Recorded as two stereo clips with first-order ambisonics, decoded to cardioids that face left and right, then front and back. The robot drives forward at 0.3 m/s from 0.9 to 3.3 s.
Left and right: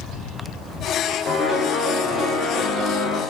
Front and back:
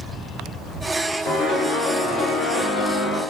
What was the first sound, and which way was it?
A piano, 35° left.